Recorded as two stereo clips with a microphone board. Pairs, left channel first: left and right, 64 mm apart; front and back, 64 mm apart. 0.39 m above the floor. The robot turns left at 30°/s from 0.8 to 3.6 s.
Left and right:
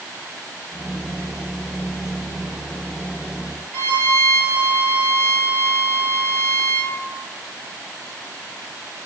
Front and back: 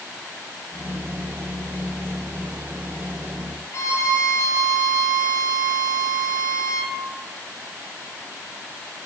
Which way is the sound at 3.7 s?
25° left.